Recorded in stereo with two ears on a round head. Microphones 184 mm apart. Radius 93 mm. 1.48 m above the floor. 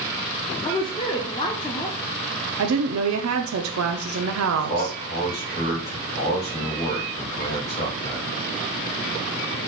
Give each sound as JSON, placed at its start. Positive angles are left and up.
{"t": 0.6, "sound": "a woman speaking", "side_deg": 20, "distance_m": 0.6}
{"t": 2.6, "sound": "a woman speaking", "side_deg": -80, "distance_m": 0.6}
{"t": 4.5, "sound": "a man speaking", "side_deg": 50, "distance_m": 2.5}